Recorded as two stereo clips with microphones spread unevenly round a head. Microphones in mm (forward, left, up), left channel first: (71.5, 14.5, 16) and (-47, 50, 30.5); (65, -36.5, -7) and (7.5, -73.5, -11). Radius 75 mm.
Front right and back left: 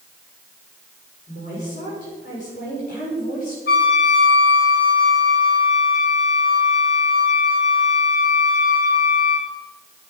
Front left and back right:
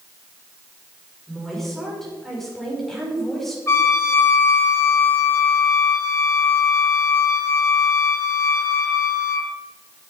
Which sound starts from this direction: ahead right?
A woman speaking, at 1.3 s.